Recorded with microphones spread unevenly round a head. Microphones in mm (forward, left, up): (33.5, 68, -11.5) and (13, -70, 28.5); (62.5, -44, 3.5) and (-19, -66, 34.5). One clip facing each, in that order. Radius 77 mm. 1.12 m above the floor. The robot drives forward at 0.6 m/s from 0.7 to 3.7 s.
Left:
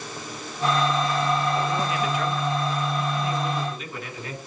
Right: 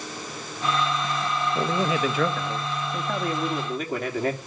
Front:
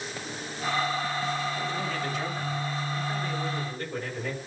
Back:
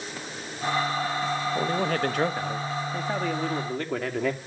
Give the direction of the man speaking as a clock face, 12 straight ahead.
4 o'clock.